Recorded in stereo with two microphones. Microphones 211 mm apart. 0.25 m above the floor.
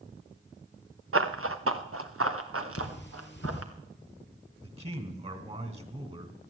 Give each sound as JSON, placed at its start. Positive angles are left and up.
{"t": 1.1, "sound": "running footsteps", "side_deg": -80, "distance_m": 1.4}
{"t": 2.8, "sound": "cutlery clinking", "side_deg": 55, "distance_m": 3.0}
{"t": 4.6, "sound": "a man speaking", "side_deg": -30, "distance_m": 2.5}